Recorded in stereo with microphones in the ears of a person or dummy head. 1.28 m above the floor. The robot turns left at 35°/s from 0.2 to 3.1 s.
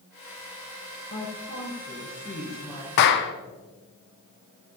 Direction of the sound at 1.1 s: 65° left.